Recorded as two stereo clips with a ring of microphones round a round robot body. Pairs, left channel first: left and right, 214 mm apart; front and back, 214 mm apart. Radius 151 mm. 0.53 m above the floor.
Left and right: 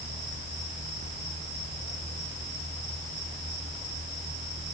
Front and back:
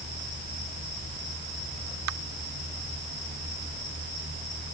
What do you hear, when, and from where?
Only background noise.